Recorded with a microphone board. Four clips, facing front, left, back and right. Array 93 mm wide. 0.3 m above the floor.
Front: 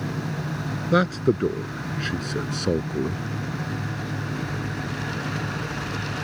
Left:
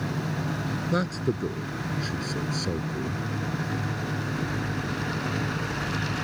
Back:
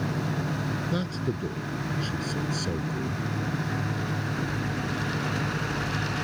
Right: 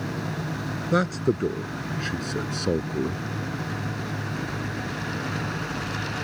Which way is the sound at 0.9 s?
15° right.